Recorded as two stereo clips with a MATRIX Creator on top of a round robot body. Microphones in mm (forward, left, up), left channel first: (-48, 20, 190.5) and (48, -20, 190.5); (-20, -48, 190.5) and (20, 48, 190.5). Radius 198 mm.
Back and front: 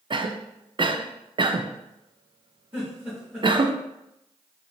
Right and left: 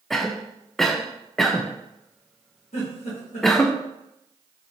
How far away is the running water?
No running water in this recording.